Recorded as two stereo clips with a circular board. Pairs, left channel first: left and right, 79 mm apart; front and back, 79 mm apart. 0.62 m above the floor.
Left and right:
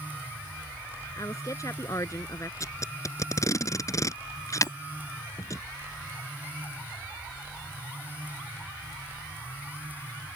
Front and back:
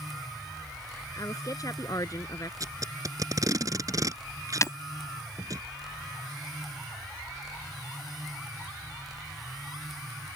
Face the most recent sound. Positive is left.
turn(degrees=45)